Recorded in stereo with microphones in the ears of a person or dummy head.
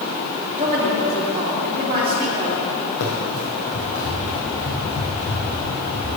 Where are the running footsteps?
60° left (ahead or behind), 3 m; by 6.1 s 30° left (ahead or behind), 5.5 m.